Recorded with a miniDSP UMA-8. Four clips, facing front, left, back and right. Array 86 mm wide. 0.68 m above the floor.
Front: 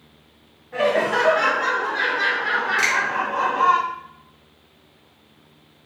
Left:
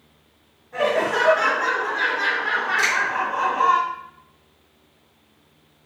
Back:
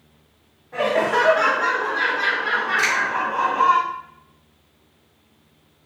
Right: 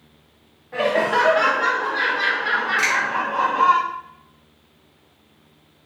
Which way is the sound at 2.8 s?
20° right.